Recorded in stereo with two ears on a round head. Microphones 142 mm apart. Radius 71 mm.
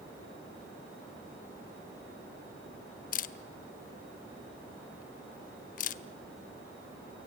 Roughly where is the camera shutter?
Left.